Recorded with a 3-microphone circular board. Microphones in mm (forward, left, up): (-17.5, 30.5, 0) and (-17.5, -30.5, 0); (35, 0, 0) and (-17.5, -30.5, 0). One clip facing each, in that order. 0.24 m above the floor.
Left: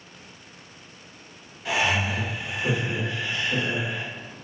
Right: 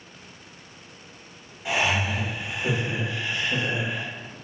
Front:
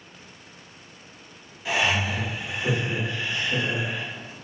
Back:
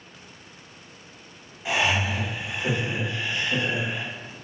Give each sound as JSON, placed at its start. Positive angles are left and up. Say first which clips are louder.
{"t": 1.6, "sound": "laughter", "louder": "even, even", "azimuth_deg": -130, "distance_m": 1.3}